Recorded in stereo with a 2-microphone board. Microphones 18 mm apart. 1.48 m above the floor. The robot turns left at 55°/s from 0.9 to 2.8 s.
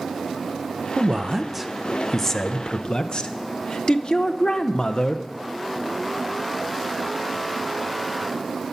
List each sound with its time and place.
1.0 s a man speaking: 135° right, 0.8 m; by 5.2 s 120° left, 0.8 m